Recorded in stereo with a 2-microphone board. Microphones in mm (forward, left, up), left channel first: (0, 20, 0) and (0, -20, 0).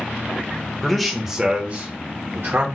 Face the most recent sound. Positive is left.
turn(degrees=-55)  # may be behind; listen again after turning